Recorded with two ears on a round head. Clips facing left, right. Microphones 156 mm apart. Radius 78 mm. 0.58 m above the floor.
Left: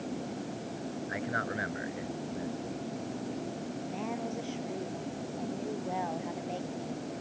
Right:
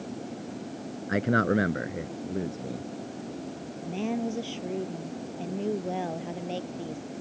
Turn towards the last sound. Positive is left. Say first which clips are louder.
# right 9 dB
turn(degrees=-40)  # may be behind; listen again after turning